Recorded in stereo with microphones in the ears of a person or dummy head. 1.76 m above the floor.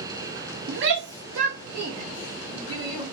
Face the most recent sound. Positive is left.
turn(degrees=-30)  # may be behind; listen again after turning